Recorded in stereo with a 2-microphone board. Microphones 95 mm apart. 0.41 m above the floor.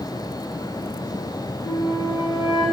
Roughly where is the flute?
Left.